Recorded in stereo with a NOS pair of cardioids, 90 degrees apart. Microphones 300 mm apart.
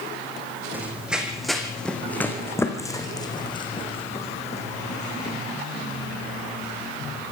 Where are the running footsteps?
5° right, 4 m; by 5.4 s 25° left, 5 m.